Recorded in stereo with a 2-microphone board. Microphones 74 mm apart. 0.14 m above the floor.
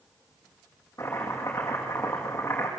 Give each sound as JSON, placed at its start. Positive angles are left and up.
{"t": 1.0, "sound": "chopping", "side_deg": 40, "distance_m": 8.0}